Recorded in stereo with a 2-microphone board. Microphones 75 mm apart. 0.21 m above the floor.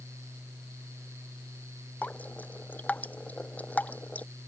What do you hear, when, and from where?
2.0 s dripping: 20° left (ahead or behind)